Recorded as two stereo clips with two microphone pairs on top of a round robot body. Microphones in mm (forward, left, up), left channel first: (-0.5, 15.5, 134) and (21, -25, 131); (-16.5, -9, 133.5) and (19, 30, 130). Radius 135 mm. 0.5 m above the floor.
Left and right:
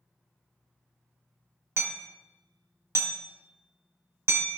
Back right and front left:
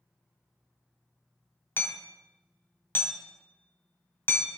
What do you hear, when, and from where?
1.8 s hammering: 90° right, 2 m